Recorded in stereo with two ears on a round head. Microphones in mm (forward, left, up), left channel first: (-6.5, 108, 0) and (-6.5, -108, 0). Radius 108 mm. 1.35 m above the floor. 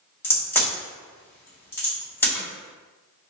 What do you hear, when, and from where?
0.2 s a crack: 10° left (ahead or behind), 1.8 m